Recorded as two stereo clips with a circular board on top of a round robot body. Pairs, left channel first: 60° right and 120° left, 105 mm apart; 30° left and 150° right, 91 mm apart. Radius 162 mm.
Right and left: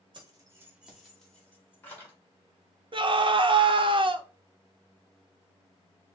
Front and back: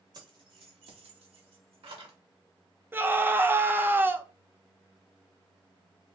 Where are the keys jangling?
165° left, 1.1 m; by 2.1 s 130° right, 2.5 m.